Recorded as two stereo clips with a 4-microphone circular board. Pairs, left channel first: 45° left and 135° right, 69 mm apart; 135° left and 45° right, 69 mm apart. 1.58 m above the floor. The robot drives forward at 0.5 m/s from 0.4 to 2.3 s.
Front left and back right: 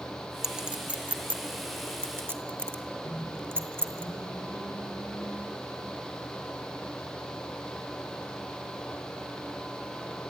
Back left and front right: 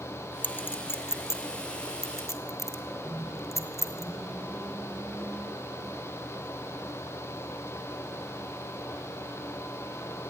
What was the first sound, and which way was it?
A clink, 155° left.